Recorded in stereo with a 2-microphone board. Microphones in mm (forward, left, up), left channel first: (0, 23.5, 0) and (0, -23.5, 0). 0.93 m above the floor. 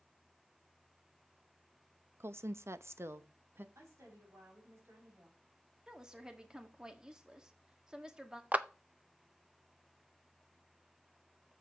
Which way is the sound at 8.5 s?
30° right (ahead or behind).